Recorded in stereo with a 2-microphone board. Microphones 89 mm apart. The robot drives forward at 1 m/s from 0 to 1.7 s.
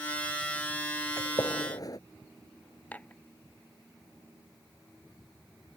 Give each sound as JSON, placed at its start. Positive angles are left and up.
{"t": 1.2, "sound": "a gunshot", "side_deg": 40}
{"t": 2.9, "sound": "dishes clattering", "side_deg": 20}